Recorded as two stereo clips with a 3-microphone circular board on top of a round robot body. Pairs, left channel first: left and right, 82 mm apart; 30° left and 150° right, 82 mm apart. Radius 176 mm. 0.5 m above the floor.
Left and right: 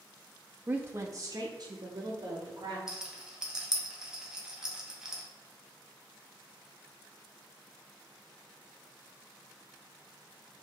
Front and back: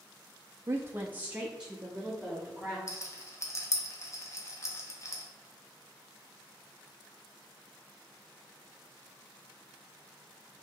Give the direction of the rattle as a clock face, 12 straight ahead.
12 o'clock.